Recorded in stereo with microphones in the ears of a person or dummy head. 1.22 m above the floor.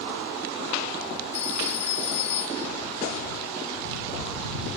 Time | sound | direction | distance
1.3 | a phone ringing | 35° left (ahead or behind) | ?